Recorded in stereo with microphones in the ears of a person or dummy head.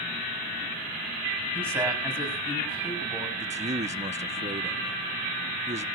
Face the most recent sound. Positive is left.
turn(degrees=-25)  # may be behind; listen again after turning